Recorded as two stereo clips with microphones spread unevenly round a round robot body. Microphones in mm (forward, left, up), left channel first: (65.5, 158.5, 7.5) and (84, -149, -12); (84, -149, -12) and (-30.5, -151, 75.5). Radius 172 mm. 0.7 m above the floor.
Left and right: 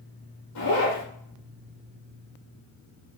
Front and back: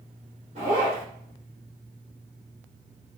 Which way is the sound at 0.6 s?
140° left.